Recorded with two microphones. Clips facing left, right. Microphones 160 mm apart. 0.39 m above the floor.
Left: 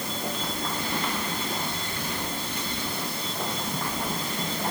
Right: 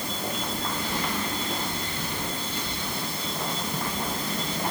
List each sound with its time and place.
Only background noise.